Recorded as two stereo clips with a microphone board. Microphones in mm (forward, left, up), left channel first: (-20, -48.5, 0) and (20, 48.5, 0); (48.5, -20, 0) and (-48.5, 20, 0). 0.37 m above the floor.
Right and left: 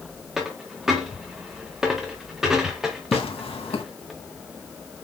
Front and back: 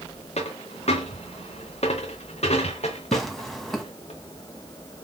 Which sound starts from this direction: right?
Tearing paper, at 3.1 s.